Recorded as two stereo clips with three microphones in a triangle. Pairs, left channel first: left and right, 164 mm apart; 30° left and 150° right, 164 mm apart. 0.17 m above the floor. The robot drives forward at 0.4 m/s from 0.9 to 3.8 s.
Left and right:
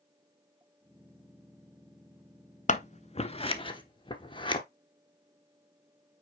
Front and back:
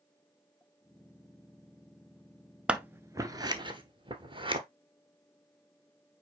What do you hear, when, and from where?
2.7 s scissors: 125° left, 0.6 m; by 4.6 s 150° left, 0.9 m